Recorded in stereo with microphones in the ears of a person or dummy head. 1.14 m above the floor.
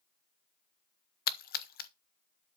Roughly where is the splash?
Left.